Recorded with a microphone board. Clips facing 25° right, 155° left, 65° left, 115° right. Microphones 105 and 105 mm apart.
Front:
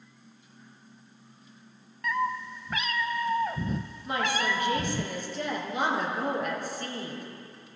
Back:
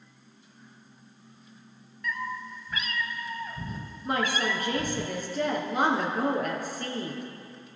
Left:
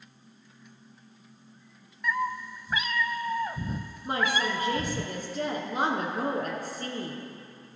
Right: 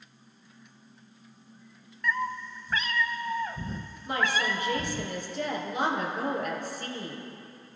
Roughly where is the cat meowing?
Ahead.